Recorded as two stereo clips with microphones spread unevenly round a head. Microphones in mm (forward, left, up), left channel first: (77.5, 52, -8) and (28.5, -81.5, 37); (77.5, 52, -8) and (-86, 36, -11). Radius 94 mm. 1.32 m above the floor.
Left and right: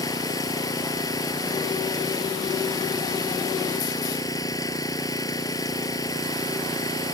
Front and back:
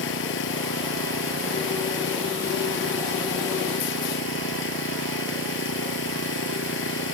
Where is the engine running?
5° left.